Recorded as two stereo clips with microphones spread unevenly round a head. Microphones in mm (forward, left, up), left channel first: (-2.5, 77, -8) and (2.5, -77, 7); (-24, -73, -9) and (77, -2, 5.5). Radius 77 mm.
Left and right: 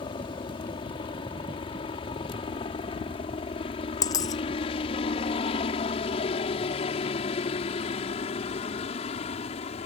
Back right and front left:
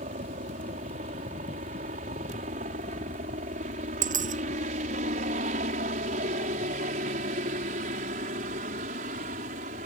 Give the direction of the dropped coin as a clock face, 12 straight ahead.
11 o'clock.